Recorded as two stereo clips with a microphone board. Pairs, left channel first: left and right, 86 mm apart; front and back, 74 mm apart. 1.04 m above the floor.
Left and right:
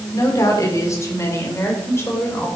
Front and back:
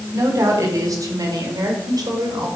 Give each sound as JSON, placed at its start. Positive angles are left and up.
{"t": 0.1, "sound": "a woman speaking", "azimuth_deg": 135, "distance_m": 3.5}